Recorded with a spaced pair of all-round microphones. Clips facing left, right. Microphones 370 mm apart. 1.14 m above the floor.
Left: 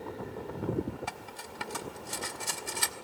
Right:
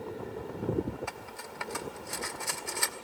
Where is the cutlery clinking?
45° left (ahead or behind), 1.0 m.